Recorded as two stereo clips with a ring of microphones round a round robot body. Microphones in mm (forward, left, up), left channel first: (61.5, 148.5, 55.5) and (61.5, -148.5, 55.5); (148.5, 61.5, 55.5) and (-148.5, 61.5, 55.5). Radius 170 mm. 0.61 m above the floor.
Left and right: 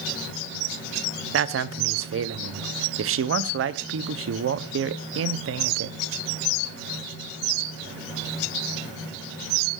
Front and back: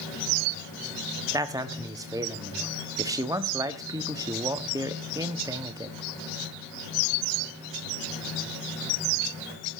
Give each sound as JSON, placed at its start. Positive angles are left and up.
{"t": 1.3, "sound": "a man speaking", "azimuth_deg": -105, "distance_m": 1.0}